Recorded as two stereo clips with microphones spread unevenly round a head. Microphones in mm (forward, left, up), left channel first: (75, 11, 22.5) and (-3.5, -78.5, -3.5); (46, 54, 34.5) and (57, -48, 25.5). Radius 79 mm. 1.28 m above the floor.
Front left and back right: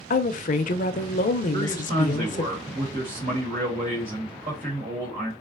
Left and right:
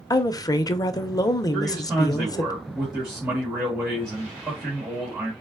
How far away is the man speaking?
About 1.5 m.